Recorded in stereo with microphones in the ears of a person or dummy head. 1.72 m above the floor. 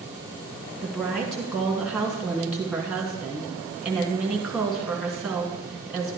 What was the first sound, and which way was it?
A woman speaking, centre (ahead or behind).